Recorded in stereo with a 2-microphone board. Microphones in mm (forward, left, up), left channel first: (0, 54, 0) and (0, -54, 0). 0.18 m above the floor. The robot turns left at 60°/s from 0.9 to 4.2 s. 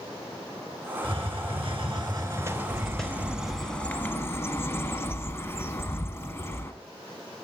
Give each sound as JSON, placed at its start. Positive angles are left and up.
{"t": 1.0, "sound": "a hiss", "azimuth_deg": -70, "distance_m": 0.9}
{"t": 2.7, "sound": "a bird", "azimuth_deg": -130, "distance_m": 0.5}